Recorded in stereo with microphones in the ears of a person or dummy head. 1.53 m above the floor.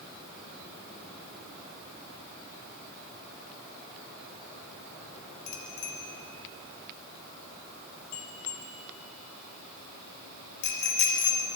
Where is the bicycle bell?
55° left (ahead or behind), 2.5 m.